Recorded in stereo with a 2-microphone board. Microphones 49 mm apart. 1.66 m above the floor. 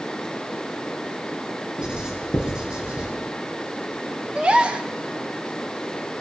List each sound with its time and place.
1.8 s writing: 15° right (ahead or behind), 7 m
4.3 s a gasp: 20° right (ahead or behind), 1.6 m